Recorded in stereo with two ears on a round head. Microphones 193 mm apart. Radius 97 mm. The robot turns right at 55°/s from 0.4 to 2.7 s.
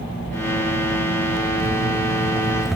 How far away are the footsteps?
About 1.7 m.